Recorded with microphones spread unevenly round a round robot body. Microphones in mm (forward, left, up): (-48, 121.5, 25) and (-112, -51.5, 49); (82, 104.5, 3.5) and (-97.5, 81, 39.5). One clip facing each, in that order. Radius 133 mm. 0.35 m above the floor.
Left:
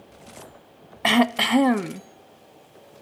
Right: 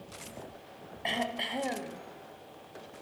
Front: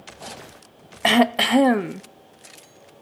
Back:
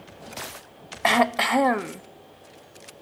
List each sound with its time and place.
1.0 s throat clearing: 75° left, 0.5 m